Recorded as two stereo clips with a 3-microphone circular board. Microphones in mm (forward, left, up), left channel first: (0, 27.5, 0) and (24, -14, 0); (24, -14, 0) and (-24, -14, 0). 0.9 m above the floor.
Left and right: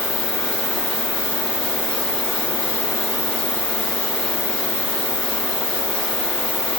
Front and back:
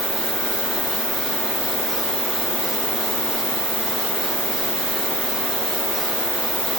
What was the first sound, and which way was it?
An insect, 30° left.